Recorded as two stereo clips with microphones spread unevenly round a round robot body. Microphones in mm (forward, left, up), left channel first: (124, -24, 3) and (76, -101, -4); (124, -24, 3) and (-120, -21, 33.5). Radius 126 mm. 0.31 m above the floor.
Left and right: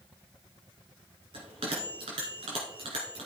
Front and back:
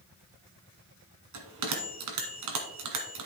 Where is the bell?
165° right, 1.7 m.